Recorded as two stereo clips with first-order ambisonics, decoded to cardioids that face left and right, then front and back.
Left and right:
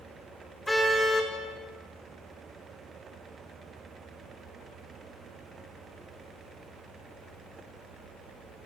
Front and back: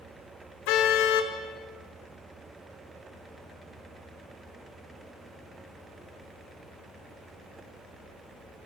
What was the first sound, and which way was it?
A car horn, 5° left.